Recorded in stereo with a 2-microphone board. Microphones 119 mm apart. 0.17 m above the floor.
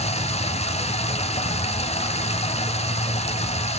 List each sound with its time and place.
0.0 s running water: 65° left (ahead or behind), 1.1 m